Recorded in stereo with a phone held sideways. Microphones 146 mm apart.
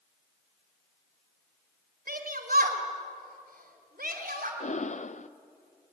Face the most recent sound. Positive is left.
turn(degrees=55)  # may be behind; listen again after turning